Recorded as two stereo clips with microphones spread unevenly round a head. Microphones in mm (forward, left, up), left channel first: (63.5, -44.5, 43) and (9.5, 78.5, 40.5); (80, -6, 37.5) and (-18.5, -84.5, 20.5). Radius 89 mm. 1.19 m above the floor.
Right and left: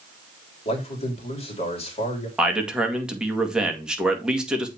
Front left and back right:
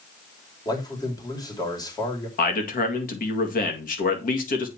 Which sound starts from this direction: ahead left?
A man speaking, at 2.4 s.